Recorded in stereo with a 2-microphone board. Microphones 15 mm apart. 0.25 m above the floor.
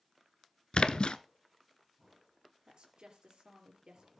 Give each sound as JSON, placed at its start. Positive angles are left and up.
{"t": 0.7, "sound": "a splash", "side_deg": 75, "distance_m": 0.7}
{"t": 2.7, "sound": "a woman speaking", "side_deg": -65, "distance_m": 4.0}